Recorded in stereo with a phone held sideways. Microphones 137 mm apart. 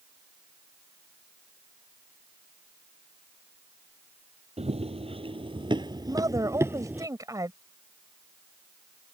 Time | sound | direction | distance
4.6 | running footsteps | 50° right (ahead or behind) | ?
6.1 | a woman speaking | 25° right (ahead or behind) | ?